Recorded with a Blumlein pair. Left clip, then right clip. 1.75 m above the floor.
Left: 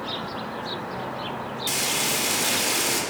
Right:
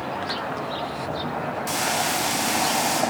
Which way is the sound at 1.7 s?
10° left.